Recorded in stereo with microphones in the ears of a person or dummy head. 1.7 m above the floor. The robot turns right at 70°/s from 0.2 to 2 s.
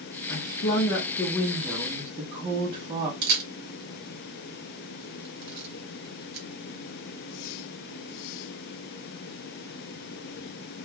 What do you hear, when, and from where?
0.3 s a woman speaking: 90° left, 0.7 m; by 3.1 s 150° right, 0.7 m
3.2 s a camera shutter: 65° right (ahead or behind), 0.9 m